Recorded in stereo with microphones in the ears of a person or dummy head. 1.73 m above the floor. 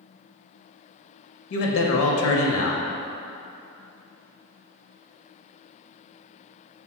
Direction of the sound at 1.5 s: 70° left (ahead or behind).